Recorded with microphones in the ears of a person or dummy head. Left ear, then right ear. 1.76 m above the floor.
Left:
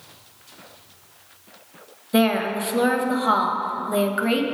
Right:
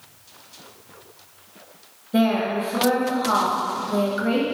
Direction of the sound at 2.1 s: 30° left (ahead or behind).